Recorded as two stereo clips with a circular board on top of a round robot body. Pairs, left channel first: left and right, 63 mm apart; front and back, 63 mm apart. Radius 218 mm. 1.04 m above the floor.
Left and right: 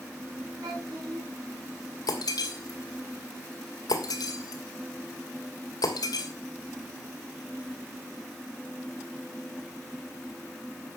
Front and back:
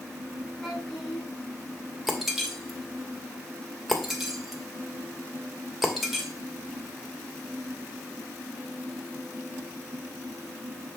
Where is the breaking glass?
95° left, 2.5 m.